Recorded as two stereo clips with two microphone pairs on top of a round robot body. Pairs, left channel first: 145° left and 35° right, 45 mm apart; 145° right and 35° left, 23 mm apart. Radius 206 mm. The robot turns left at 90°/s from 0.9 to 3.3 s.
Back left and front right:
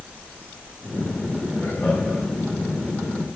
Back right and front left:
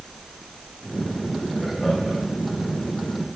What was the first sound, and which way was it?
Laughter, 165° left.